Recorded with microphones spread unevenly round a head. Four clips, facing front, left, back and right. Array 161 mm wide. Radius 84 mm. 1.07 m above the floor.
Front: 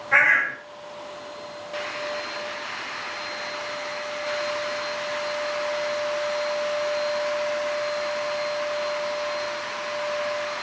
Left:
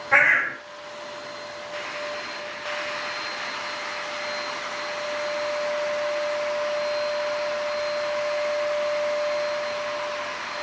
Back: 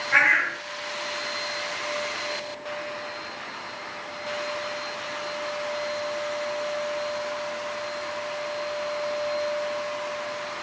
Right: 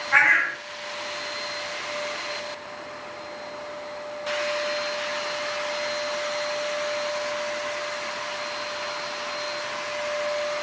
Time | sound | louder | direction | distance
0.1 | a bird | even, front 2 dB | 65° left | 5.5 m